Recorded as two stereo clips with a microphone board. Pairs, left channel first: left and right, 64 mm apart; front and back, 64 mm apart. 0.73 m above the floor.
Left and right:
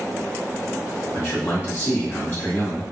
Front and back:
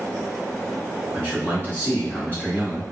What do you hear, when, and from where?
1.1 s a man speaking: 50° left, 1.1 m